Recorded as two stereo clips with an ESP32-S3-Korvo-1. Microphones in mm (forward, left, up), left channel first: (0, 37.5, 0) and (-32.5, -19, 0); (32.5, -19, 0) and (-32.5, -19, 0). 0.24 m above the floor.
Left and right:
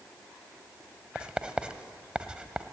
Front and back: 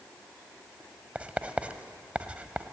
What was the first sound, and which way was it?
Writing, 165° right.